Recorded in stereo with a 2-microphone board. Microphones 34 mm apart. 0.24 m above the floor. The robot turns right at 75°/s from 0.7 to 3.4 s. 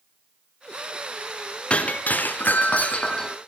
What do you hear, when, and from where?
1.7 s breaking glass: 40° left, 2 m; by 3.4 s 165° left, 2 m